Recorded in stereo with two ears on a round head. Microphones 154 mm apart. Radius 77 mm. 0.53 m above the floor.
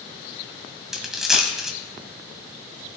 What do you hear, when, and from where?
0.9 s a dropped coin: 5° right (ahead or behind), 1.3 m